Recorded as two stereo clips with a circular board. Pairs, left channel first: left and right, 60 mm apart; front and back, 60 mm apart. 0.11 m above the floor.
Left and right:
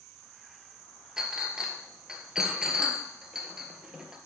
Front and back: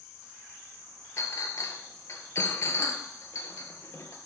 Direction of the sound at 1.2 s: 15° right.